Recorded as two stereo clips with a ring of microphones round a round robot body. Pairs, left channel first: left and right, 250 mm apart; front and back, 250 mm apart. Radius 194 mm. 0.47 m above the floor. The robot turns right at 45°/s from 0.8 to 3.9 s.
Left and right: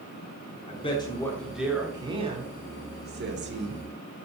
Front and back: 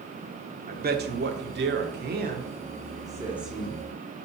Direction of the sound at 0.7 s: 145° left.